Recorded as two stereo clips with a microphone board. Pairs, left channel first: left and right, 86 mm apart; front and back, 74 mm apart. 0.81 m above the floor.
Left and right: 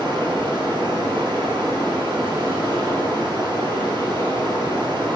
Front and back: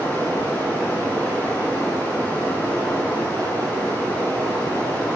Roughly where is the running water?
Ahead right.